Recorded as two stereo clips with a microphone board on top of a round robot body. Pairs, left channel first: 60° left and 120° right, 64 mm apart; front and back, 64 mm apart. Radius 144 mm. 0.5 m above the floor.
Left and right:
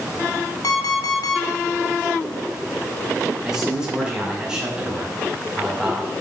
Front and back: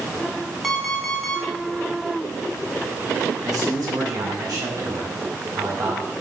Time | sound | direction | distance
0.6 | an alarm clock | 85° left | 1.8 m
3.4 | a man speaking | 160° left | 5.5 m